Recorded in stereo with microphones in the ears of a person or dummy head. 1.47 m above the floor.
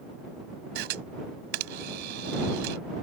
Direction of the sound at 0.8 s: 55° right (ahead or behind).